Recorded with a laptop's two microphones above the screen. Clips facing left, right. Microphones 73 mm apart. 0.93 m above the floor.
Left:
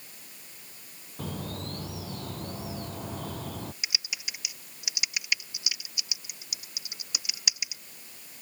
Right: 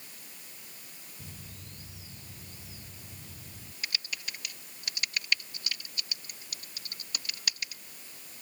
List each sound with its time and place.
1.2 s a bird: 70° left (ahead or behind)
3.8 s typing on a keyboard: 10° left (ahead or behind)